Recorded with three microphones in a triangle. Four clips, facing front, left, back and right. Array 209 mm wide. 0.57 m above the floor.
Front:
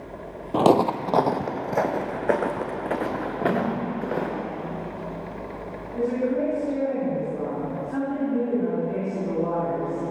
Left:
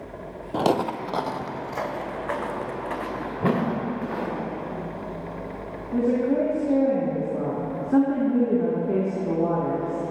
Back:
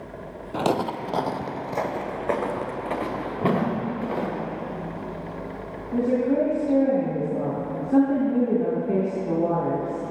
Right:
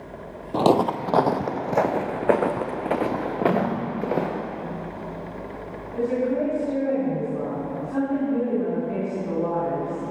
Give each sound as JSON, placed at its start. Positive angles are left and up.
{"t": 0.5, "sound": "footsteps", "azimuth_deg": -15, "distance_m": 0.6}
{"t": 3.4, "sound": "a whoosh", "azimuth_deg": 115, "distance_m": 2.0}
{"t": 5.9, "sound": "a woman speaking", "azimuth_deg": 130, "distance_m": 5.0}